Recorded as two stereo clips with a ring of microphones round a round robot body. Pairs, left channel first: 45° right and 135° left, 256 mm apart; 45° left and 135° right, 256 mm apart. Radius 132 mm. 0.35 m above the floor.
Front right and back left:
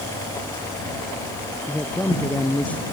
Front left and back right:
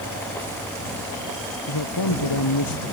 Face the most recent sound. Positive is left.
turn(degrees=40)